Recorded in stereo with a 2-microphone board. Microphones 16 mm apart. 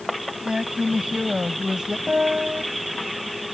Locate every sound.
0.5 s a woman speaking: 60° right (ahead or behind); by 2.0 s 50° right (ahead or behind)
2.1 s a piano: 85° right